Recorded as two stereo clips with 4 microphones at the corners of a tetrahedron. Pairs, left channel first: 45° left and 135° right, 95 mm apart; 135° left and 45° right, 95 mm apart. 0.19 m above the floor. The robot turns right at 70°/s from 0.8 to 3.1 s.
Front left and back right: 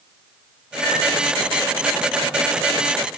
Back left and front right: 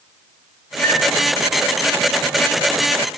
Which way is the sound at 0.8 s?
10° right.